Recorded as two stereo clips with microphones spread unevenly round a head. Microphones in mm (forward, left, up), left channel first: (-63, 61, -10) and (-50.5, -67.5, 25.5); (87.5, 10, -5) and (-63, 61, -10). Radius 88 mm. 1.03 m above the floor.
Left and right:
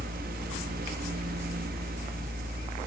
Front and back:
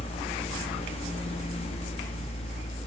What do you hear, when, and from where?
0.0 s a fan: 80° right, 0.9 m